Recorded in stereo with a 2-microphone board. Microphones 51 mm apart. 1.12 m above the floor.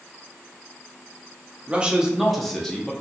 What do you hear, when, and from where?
1.7 s a man speaking: 25° right (ahead or behind), 0.6 m; by 2.9 s 15° left (ahead or behind), 0.8 m